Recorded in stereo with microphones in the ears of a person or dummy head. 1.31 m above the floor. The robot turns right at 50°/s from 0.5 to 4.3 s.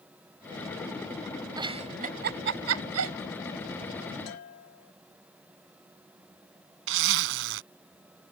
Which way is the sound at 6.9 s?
70° right (ahead or behind).